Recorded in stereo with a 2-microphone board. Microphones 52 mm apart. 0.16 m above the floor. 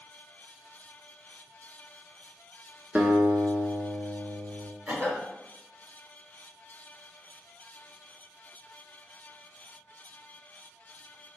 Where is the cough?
25° right (ahead or behind), 1.9 m.